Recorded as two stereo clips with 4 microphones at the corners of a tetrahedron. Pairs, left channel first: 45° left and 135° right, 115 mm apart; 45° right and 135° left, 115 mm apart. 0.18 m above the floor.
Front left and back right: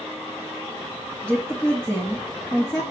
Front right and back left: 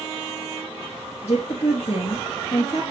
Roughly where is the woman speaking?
Ahead right.